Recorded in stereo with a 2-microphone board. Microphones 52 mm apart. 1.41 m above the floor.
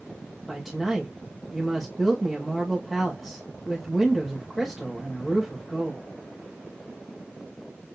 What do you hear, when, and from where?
0.5 s a woman speaking: centre (ahead or behind), 1.1 m